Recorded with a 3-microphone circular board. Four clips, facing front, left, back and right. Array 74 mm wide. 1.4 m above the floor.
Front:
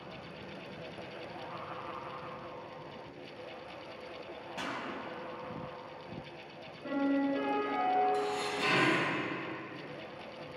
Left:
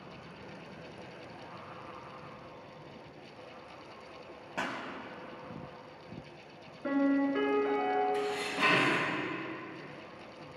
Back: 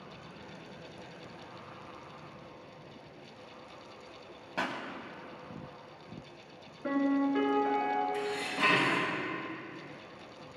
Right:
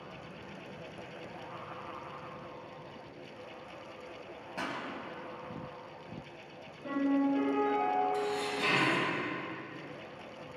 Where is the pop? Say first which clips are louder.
Left 2 dB, back 5 dB; 150° left, 1.9 m.